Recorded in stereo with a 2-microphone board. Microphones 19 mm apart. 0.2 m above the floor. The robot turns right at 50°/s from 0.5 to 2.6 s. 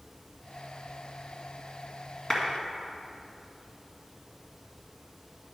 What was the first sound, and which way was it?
A clap, 25° left (ahead or behind).